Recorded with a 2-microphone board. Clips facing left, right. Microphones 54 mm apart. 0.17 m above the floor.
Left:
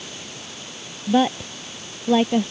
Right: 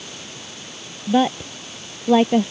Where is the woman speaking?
5° right (ahead or behind); by 2.5 s 20° right (ahead or behind).